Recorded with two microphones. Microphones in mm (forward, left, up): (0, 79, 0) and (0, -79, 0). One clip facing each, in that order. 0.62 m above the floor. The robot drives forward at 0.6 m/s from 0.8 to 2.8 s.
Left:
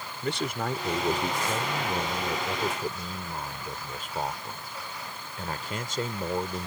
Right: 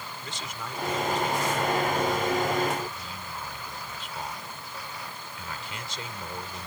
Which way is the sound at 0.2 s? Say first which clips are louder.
Left 12 dB; 60° left (ahead or behind).